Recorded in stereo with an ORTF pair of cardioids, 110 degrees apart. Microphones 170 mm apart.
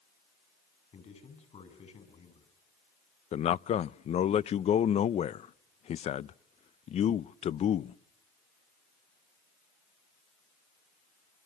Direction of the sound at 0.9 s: 40° left.